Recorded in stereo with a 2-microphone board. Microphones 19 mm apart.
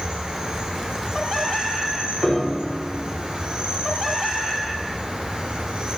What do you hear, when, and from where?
0.0 s an insect: 75° right (ahead or behind), 5 m
2.2 s a piano: centre (ahead or behind), 4.5 m